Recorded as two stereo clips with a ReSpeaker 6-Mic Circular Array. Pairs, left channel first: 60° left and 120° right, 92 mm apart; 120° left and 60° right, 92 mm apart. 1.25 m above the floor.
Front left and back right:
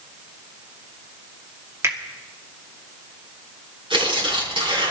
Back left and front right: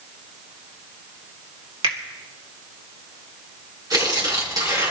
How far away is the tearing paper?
About 5.5 m.